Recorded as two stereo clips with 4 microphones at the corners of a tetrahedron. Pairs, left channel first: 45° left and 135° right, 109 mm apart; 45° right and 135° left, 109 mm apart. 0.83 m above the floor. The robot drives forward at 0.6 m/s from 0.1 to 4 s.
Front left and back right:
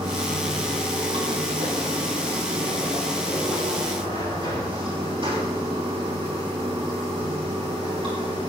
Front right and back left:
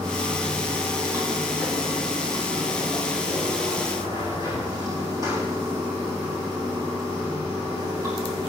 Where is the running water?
165° right, 6 m; by 8.5 s 170° right, 8.5 m.